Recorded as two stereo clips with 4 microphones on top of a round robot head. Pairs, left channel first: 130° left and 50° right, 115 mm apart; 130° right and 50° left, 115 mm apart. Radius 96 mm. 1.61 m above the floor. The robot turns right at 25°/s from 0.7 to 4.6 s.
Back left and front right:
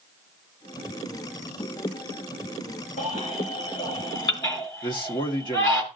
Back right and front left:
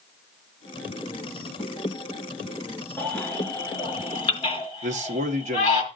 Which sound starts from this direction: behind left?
A baby crying, at 3.0 s.